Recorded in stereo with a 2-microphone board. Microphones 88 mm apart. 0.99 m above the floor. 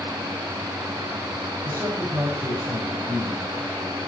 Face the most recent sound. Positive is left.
turn(degrees=-40)  # may be behind; listen again after turning